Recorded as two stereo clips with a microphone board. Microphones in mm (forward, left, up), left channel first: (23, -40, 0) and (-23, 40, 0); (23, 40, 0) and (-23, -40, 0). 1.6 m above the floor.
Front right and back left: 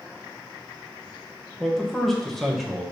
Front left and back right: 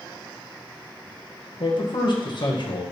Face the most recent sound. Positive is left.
turn(degrees=25)